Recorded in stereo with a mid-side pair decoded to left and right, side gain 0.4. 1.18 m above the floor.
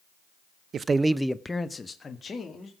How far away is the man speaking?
About 0.6 m.